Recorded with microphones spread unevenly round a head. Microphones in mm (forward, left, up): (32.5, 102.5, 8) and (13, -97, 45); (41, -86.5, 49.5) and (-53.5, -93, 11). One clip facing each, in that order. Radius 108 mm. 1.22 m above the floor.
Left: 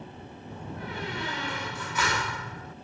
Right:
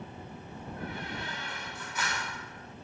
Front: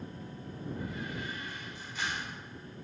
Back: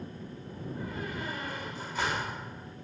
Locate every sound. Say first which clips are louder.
0.5 s a door slam: left 2 dB, back 1 dB; 120° left